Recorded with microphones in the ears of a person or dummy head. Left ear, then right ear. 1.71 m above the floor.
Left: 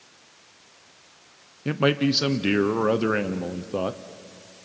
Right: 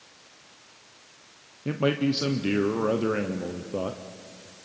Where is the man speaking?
30° left (ahead or behind), 0.6 m.